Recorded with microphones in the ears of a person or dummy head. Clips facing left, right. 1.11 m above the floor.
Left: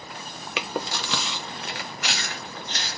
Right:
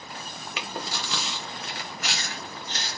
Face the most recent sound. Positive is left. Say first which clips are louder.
# left 5 dB
turn(degrees=50)  # may be behind; listen again after turning